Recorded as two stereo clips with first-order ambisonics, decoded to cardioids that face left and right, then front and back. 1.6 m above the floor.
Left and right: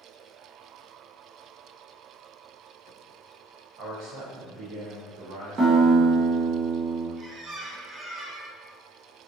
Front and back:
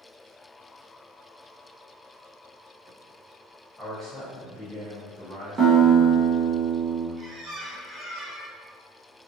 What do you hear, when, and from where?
3.8 s a man speaking: 90° right, 1.1 m
5.6 s a guitar: 125° right, 0.8 m
7.2 s a squeak: 150° right, 0.5 m